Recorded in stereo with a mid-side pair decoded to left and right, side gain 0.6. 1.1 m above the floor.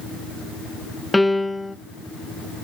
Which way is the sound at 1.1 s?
10° left.